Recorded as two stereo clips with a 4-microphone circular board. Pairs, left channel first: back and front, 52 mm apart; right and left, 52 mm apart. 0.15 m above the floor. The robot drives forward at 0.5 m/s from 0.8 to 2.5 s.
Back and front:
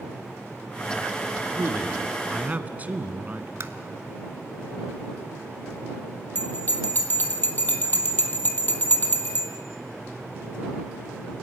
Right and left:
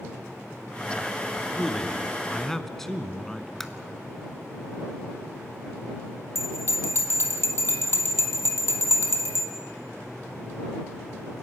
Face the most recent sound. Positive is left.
turn(degrees=-125)